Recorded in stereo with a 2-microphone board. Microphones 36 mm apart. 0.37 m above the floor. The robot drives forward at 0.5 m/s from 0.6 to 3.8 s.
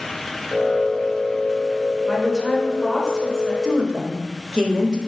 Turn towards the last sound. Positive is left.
turn(degrees=-25)  # may be behind; listen again after turning